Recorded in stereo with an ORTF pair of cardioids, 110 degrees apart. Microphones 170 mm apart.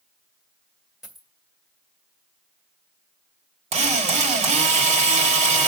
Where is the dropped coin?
Straight ahead, 1.8 m.